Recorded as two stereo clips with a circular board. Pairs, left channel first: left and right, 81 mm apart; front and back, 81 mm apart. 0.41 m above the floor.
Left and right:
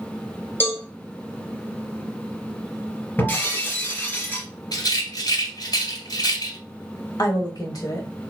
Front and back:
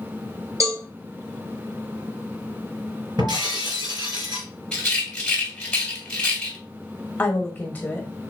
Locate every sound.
0.6 s a cowbell: 145° left, 2.5 m
3.2 s breaking glass: 155° left, 2.5 m
4.7 s a rattle: 75° left, 2.5 m
7.2 s a woman speaking: 65° left, 1.5 m